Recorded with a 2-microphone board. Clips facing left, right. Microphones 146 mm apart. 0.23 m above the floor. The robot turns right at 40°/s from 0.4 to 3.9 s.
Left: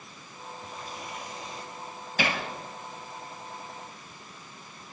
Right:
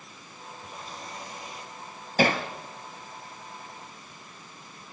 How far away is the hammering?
About 2 m.